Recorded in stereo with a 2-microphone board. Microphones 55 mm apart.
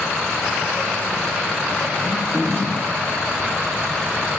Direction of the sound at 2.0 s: 30° right (ahead or behind).